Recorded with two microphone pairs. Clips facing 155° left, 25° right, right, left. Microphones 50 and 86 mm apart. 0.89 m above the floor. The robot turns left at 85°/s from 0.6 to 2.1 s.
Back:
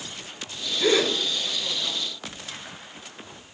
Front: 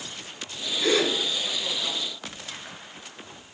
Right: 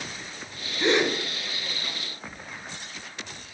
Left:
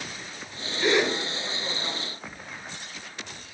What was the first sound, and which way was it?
A gasp, 150° right.